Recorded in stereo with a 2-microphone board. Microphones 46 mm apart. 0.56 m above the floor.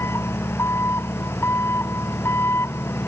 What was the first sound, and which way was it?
An engine running, 70° left (ahead or behind).